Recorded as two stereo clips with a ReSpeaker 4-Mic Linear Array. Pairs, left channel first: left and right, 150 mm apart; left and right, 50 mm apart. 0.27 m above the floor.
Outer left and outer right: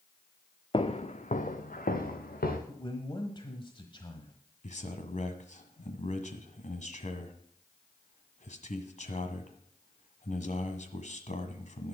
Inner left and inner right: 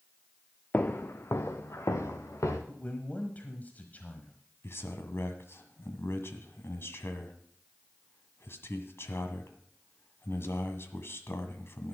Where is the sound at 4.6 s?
55° left (ahead or behind), 1.6 m.